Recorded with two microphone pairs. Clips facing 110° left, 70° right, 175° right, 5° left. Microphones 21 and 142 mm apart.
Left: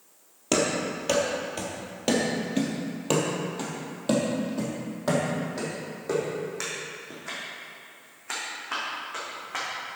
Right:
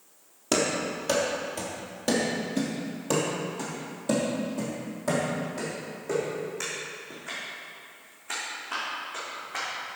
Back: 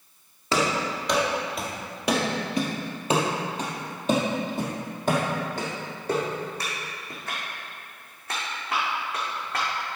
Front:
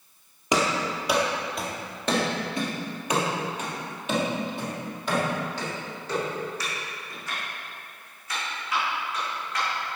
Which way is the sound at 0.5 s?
50° left.